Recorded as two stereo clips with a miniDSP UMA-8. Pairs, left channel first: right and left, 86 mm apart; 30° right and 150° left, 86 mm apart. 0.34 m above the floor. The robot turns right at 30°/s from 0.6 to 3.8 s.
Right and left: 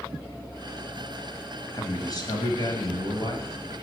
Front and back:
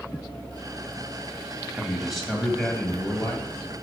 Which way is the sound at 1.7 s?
130° right.